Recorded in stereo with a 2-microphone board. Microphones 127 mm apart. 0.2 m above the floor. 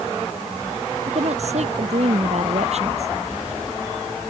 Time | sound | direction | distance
1.1 | a woman speaking | 60° right (ahead or behind) | ?